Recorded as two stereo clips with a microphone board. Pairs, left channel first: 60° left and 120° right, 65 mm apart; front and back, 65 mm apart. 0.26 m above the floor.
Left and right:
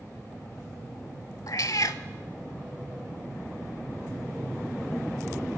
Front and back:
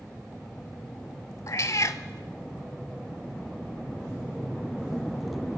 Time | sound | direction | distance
1.5 | a cat meowing | 35° left | 0.6 m